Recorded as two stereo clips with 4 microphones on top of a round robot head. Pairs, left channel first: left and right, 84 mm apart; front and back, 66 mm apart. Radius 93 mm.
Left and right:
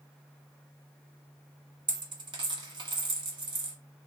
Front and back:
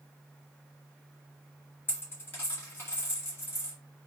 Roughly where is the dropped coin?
Ahead right.